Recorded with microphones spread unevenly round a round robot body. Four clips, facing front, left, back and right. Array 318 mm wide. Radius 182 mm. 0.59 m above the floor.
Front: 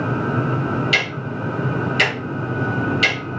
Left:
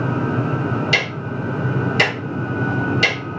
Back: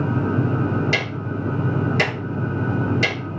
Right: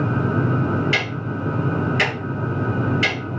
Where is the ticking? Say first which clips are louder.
Left 2 dB, front 1 dB; 160° left, 1.9 m.